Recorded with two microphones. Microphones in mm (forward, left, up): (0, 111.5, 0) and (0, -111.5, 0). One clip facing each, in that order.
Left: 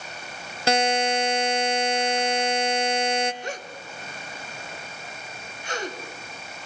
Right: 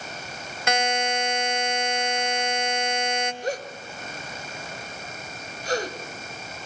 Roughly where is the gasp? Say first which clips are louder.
Right 5 dB; right.